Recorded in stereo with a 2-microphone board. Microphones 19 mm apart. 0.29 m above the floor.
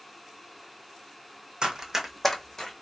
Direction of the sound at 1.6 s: 50° right (ahead or behind).